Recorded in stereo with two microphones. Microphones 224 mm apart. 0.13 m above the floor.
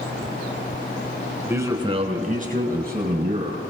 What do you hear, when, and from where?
1.5 s a man speaking: 10° right (ahead or behind), 1.2 m; by 3.7 s 45° right (ahead or behind), 3 m